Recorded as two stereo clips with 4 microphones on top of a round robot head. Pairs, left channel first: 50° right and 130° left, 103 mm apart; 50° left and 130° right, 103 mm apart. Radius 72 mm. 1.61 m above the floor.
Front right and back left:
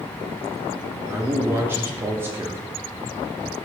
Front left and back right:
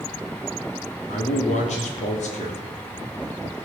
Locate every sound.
1.1 s a man speaking: 60° left, 3.5 m